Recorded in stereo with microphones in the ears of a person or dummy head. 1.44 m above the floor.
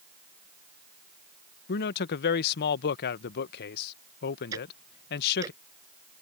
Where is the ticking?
25° right (ahead or behind).